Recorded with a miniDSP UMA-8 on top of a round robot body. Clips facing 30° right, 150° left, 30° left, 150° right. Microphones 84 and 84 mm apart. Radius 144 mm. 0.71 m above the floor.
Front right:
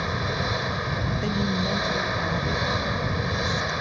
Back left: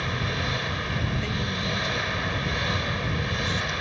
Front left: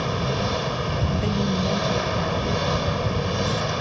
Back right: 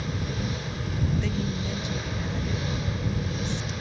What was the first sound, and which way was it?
An engine running, 40° left.